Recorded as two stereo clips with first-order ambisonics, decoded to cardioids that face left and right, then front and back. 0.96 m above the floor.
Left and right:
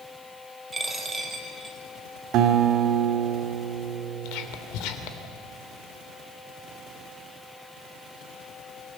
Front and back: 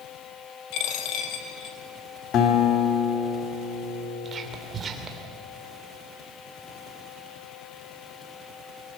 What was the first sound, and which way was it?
A dropped coin, 15° right.